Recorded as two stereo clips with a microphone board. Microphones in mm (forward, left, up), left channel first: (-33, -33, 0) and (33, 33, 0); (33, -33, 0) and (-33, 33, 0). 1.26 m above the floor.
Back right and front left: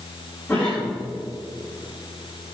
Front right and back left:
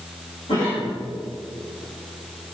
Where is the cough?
65° right, 3.5 m.